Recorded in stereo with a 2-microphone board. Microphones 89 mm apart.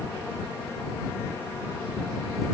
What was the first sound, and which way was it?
Only background noise.